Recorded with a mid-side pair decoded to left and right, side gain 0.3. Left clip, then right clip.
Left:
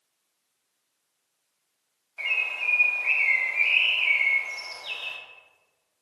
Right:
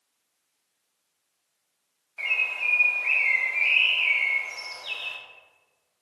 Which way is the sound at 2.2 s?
5° right.